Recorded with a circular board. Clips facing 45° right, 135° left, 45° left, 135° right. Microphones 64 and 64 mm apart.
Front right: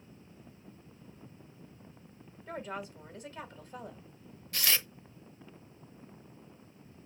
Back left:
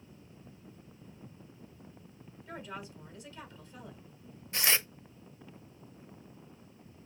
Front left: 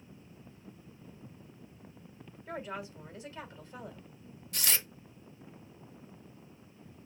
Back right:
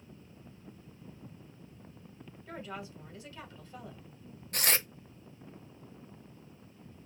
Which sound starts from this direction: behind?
Tearing paper, at 4.5 s.